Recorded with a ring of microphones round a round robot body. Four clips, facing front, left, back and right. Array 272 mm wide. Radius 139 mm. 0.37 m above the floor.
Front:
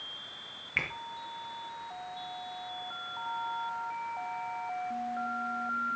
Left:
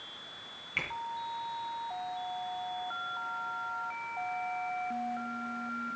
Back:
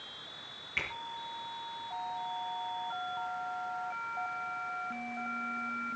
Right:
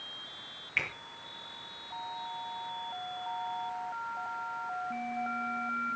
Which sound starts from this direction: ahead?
A finger snap, at 0.8 s.